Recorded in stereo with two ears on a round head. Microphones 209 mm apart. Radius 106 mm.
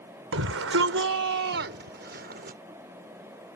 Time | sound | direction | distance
0.3 | a shout | 65° right (ahead or behind) | ?